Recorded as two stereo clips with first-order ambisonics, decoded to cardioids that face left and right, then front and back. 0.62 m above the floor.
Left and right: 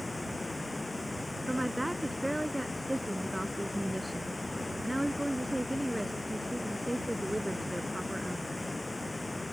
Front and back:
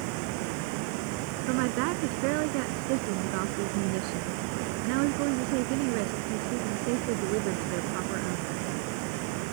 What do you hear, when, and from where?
0.0 s running water: 170° left
1.5 s a woman speaking: straight behind